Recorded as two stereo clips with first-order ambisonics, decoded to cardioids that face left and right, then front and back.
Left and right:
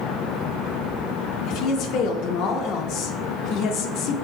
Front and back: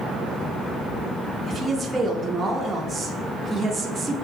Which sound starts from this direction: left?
A woman speaking, at 1.5 s.